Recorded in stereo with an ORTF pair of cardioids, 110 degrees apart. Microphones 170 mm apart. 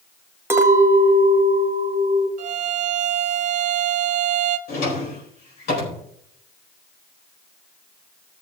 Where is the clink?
15° right, 1.6 m.